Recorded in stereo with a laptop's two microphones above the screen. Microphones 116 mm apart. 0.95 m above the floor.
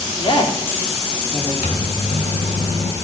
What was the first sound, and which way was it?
A woman speaking, 50° left (ahead or behind).